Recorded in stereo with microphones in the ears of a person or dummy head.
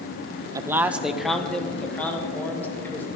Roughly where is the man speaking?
Centre.